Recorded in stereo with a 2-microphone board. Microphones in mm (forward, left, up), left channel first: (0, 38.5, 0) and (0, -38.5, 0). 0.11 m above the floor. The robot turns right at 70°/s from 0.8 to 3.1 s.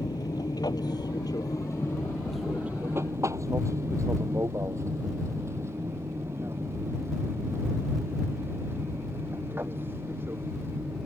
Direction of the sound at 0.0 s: 60° left (ahead or behind).